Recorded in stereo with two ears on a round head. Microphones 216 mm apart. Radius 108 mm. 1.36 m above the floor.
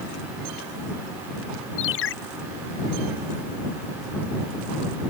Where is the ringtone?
55° left (ahead or behind).